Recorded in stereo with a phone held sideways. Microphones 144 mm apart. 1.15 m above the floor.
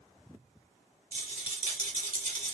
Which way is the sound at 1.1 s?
70° right (ahead or behind).